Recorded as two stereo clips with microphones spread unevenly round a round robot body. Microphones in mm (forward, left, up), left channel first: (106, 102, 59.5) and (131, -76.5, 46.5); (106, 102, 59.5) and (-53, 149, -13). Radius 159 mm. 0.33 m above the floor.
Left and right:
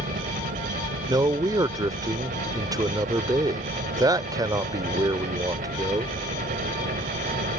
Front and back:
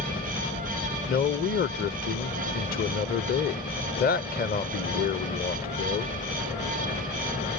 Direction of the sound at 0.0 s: 90° right.